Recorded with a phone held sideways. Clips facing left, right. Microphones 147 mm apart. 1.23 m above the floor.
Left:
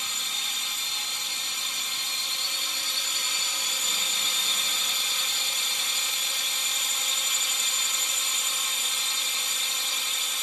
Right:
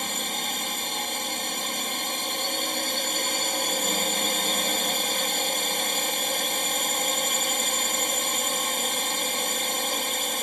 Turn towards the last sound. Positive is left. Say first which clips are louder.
# right 10 dB
turn(degrees=-55)  # may be behind; listen again after turning